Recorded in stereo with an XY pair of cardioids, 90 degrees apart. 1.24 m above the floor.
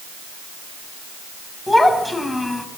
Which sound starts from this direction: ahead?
A child speaking, at 1.7 s.